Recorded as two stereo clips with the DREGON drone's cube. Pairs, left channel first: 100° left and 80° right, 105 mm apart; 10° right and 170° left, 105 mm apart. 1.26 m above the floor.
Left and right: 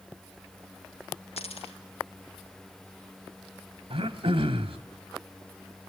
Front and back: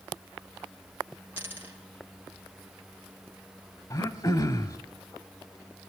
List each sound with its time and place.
1.4 s a dropped coin: 100° left, 4.5 m
3.9 s throat clearing: 55° right, 1.6 m